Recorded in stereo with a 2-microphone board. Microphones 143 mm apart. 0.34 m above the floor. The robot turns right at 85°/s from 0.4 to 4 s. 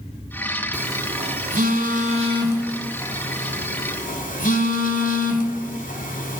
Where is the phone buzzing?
10° right (ahead or behind), 1.0 m; by 6.4 s 70° left (ahead or behind), 1.0 m.